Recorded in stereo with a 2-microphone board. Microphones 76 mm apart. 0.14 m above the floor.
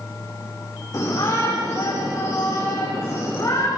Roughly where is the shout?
Left.